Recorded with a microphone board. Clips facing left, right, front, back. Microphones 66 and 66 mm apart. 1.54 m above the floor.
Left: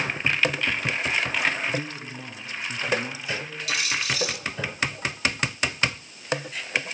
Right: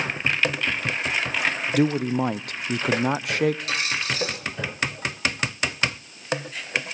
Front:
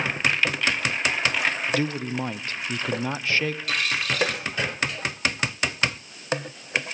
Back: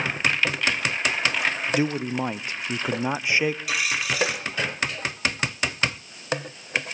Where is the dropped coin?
105° right, 1.2 m.